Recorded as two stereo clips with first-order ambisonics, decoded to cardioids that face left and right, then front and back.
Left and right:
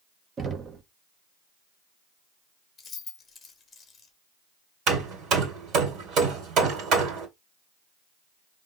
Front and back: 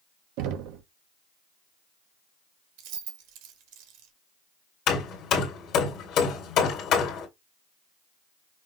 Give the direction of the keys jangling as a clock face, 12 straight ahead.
7 o'clock.